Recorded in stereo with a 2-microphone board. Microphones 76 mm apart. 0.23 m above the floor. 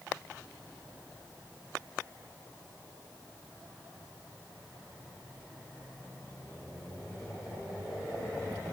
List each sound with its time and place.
Only background noise.